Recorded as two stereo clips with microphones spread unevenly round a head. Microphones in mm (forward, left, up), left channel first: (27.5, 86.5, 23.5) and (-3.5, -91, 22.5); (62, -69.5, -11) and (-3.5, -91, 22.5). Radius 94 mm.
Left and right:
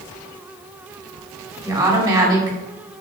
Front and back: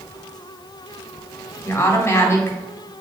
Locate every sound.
1.6 s a woman speaking: 30° right, 3.5 m